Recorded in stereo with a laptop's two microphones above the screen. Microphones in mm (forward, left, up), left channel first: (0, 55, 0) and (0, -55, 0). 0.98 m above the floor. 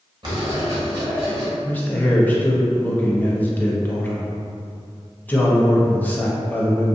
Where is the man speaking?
15° left (ahead or behind), 0.6 m.